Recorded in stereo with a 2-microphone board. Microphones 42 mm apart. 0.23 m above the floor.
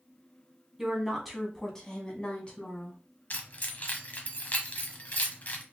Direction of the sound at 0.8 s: 10° right (ahead or behind).